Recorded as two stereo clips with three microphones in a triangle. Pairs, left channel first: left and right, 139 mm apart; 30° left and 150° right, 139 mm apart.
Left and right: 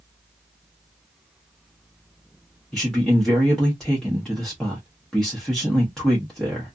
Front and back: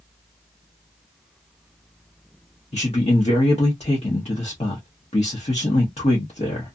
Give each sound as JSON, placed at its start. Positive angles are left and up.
{"t": 2.7, "sound": "a man speaking", "azimuth_deg": 5, "distance_m": 0.9}